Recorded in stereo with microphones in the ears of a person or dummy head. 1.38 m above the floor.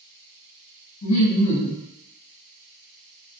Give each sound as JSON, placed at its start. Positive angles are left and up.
{"t": 1.0, "sound": "laughter", "side_deg": 80, "distance_m": 1.3}